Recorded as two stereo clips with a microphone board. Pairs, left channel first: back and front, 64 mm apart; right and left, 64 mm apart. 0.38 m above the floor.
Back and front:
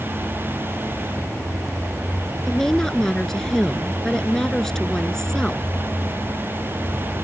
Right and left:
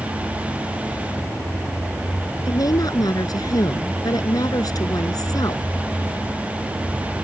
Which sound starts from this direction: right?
A woman speaking, at 2.5 s.